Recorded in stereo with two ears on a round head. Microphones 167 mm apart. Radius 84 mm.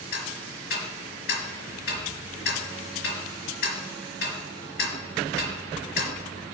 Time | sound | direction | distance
0.1 | ticking | 60° left (ahead or behind) | 3.5 m